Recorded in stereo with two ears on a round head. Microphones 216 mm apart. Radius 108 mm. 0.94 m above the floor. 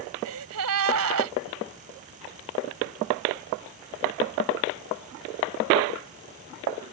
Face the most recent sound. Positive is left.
turn(degrees=-75)  # may be behind; listen again after turning